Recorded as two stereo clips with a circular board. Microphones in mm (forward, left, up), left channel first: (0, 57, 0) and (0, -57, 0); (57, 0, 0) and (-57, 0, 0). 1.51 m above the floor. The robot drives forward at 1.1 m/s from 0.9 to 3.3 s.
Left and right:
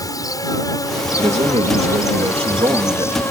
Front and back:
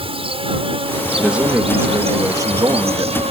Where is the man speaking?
95° right; by 3.2 s 135° right.